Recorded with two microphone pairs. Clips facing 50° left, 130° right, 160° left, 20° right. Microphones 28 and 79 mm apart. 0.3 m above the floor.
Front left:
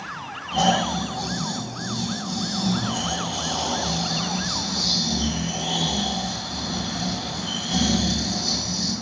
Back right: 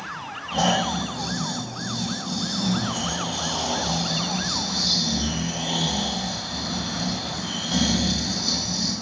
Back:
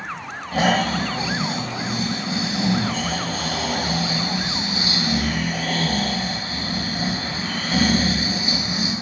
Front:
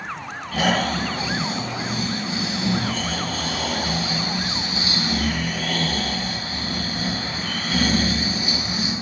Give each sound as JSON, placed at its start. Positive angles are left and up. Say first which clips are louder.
{"t": 0.5, "sound": "snoring", "louder": "front left 1 dB, back 2 dB", "azimuth_deg": 150, "distance_m": 1.4}